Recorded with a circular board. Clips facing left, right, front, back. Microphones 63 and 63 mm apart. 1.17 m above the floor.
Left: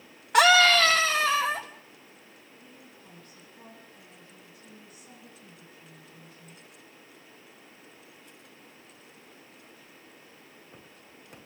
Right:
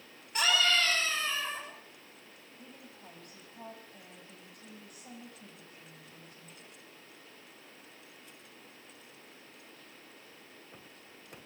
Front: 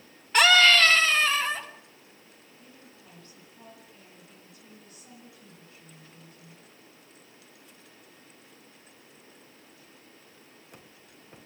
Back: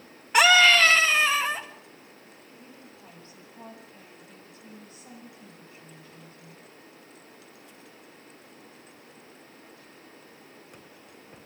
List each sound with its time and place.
0.3 s a scream: 105° left, 1.4 m
2.6 s a woman speaking: 120° right, 8 m